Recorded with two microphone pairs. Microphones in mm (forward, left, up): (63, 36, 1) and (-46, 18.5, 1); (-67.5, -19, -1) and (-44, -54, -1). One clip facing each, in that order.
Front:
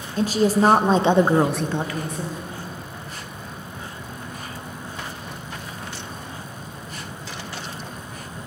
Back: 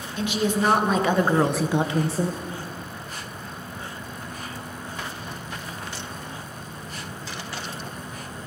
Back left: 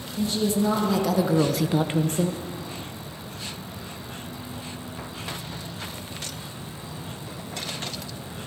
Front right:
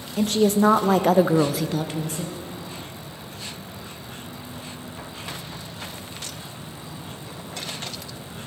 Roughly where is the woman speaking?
Ahead right.